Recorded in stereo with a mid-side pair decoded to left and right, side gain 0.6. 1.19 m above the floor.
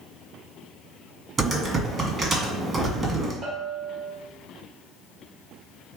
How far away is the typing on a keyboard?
About 1.8 m.